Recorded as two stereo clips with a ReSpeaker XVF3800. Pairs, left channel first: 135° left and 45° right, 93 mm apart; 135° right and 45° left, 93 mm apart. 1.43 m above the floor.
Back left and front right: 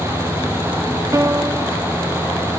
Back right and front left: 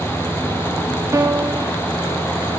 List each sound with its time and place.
1.1 s a piano: 5° right, 0.5 m